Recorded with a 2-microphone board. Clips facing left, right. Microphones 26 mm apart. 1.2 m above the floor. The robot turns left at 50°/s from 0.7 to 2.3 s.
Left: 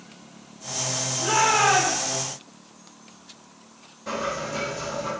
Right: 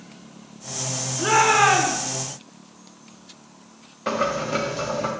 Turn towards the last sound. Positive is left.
turn(degrees=-55)  # may be behind; listen again after turning